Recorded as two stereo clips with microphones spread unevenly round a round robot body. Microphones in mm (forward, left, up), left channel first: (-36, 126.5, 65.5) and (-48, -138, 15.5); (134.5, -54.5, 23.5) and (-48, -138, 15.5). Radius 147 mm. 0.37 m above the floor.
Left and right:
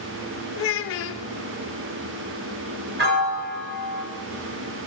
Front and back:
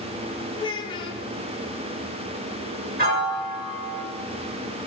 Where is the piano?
130° right, 2.5 m.